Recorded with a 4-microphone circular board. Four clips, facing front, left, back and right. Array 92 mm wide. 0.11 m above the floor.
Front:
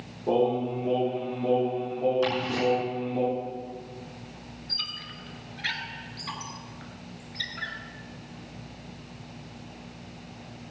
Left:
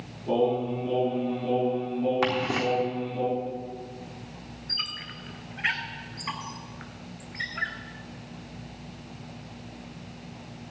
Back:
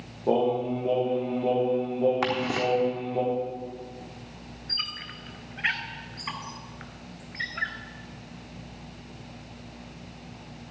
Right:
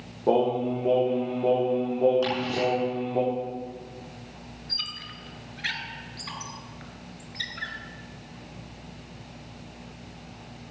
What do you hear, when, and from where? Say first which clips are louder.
0.3 s singing: right 2 dB, even; 105° right, 6.5 m
2.2 s ticking: left 1 dB, back 1 dB; 140° left, 3.5 m
4.7 s a squeak: left 2 dB, back 2 dB; 150° left, 1.2 m